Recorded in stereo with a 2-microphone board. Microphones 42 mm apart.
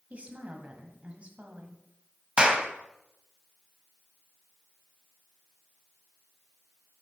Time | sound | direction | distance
0.1 | a woman speaking | 30° right (ahead or behind) | 1.3 m
2.4 | a clap | 20° right (ahead or behind) | 0.9 m